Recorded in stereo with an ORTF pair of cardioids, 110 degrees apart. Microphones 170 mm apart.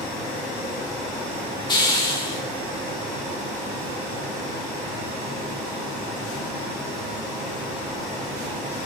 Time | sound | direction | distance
1.7 | a hiss | 25° left | 3 m